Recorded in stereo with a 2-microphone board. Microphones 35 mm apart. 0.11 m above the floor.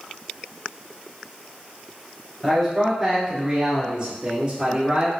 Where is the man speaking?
5° right (ahead or behind), 1.9 m; by 5.1 s 45° right (ahead or behind), 2.5 m.